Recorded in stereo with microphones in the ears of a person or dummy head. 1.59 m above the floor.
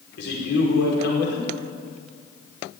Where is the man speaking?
70° left (ahead or behind), 4.5 m.